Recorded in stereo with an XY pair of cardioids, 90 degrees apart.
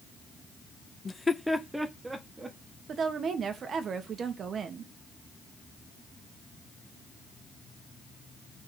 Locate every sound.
1.1 s laughter: 40° left, 0.7 m; by 2.6 s 25° right, 1.9 m
2.9 s a woman speaking: 60° right, 1.7 m